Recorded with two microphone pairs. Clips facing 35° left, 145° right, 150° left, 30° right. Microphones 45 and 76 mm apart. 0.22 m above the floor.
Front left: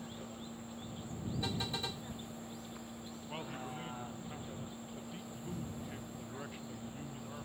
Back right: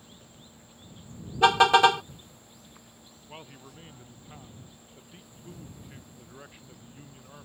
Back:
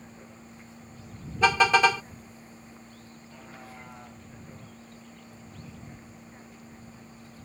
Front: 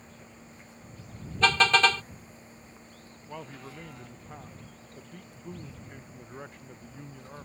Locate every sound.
0.0 s a vehicle: 85° left
1.4 s a car horn: 130° right
3.3 s a man speaking: 55° right